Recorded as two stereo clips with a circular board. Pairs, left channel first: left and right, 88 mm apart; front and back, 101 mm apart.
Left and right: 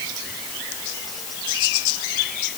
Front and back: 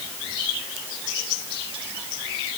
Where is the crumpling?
No crumpling in this recording.